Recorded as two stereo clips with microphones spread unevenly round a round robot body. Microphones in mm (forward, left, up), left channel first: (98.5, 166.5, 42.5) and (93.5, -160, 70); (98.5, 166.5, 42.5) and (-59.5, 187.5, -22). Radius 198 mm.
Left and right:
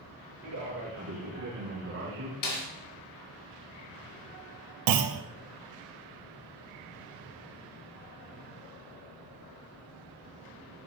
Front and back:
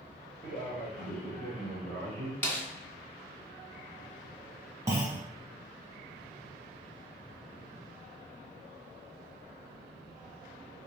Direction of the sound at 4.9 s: 120° right.